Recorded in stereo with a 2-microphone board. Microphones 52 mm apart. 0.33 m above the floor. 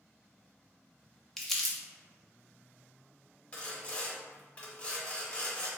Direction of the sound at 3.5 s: 25° left (ahead or behind).